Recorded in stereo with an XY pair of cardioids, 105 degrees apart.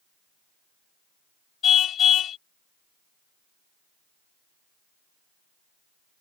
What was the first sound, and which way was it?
A car horn, 60° left.